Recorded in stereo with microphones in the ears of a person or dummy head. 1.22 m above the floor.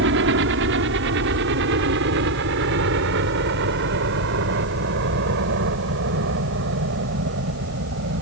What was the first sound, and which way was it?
A helicopter, 60° right (ahead or behind).